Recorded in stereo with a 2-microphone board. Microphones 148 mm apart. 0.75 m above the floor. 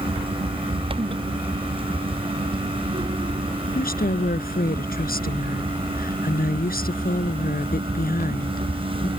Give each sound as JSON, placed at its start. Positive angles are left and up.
{"t": 3.7, "sound": "a woman speaking", "side_deg": 85}